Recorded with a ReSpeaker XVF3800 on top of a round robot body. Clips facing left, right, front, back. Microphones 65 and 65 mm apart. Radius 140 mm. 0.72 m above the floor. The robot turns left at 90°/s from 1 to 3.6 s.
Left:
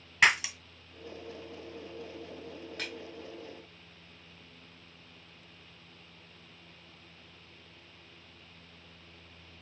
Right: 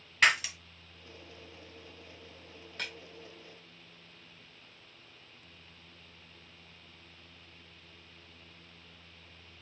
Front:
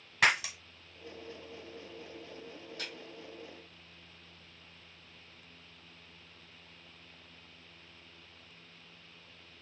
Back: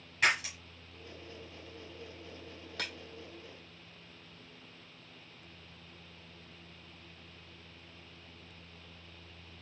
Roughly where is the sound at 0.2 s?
Ahead.